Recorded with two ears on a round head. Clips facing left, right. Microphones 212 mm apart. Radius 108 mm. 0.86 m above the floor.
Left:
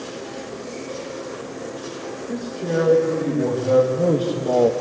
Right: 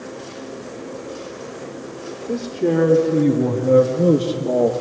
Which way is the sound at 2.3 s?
60° right (ahead or behind).